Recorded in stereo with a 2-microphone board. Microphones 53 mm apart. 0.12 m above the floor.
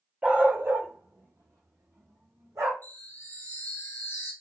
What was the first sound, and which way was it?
A dog barking, 30° right (ahead or behind).